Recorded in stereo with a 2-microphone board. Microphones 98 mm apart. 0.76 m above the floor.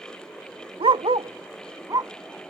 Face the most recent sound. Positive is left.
turn(degrees=-40)  # may be behind; listen again after turning